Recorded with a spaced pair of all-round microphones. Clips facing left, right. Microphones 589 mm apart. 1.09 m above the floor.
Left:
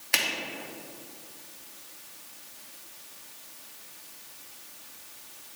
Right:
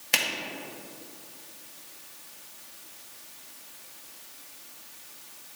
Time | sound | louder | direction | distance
0.1 | a finger snap | right 1 dB | 55° right (ahead or behind) | 1.1 m